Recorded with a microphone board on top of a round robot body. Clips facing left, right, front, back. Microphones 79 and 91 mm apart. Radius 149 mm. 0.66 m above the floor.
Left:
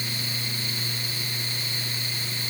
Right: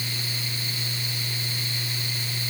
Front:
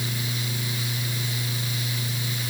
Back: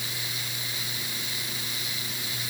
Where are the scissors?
No scissors in this recording.